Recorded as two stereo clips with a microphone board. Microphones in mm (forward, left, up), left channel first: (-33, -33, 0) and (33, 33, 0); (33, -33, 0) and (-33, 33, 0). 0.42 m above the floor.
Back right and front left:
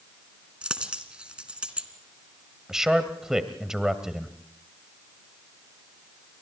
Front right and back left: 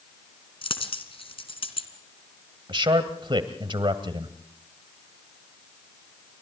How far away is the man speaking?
About 1.9 m.